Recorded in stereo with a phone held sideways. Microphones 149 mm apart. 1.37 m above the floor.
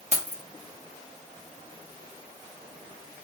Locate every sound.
0.1 s keys jangling: 50° right (ahead or behind), 1.6 m